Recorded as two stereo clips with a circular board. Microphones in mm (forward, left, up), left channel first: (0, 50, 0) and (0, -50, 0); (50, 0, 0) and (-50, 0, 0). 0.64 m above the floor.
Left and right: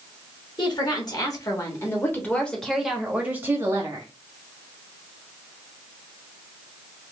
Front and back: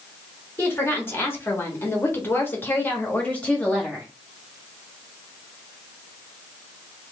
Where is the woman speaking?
65° left, 1.9 m; by 4.1 s 75° right, 1.3 m.